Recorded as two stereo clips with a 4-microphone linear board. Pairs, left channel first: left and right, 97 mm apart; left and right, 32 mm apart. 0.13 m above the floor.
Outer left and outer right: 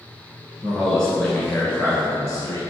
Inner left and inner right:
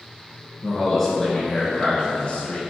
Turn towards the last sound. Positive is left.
turn(degrees=35)  # may be behind; listen again after turning